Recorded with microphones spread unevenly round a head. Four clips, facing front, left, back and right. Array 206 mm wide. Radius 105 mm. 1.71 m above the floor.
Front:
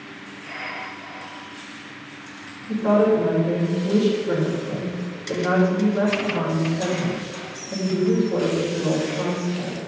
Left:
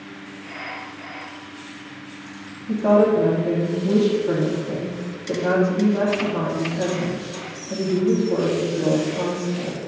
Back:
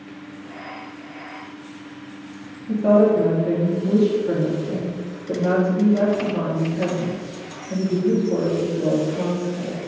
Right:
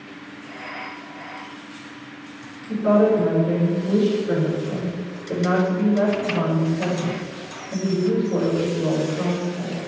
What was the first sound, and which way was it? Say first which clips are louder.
A woman speaking: left 1 dB, back 2 dB; 130° left.